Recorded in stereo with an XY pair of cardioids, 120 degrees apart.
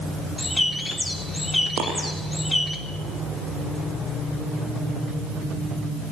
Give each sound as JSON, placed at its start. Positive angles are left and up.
{"t": 0.4, "sound": "a bird", "azimuth_deg": 5, "distance_m": 3.0}
{"t": 1.8, "sound": "a dropped coin", "azimuth_deg": -70, "distance_m": 8.0}